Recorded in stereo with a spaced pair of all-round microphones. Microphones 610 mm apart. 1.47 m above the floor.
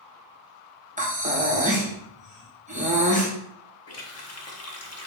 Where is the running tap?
25° left (ahead or behind), 0.5 m.